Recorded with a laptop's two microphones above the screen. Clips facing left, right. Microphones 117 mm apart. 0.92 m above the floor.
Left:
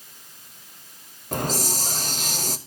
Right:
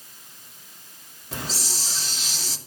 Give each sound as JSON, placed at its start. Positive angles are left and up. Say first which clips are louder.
{"t": 1.3, "sound": "a hiss", "louder": "left 8 dB", "side_deg": 50, "distance_m": 0.9}